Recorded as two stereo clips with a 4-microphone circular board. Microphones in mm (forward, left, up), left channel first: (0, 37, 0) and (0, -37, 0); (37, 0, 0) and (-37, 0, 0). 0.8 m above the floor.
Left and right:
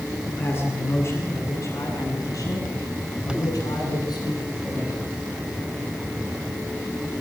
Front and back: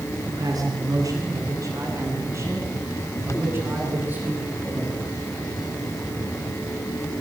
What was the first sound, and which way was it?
A man speaking, 150° left.